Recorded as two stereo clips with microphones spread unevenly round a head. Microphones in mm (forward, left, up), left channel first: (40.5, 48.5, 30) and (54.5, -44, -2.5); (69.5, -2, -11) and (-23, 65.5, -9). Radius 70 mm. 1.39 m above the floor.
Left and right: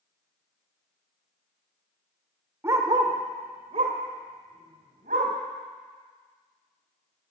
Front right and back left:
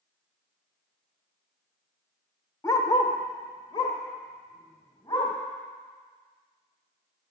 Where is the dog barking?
5° right, 1.1 m; by 5.3 s 95° right, 3 m.